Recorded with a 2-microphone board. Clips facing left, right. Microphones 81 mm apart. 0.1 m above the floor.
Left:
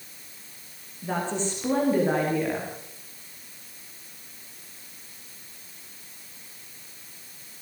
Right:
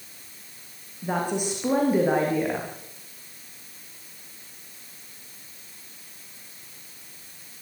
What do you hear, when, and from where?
1.0 s a woman speaking: 15° right (ahead or behind), 5.5 m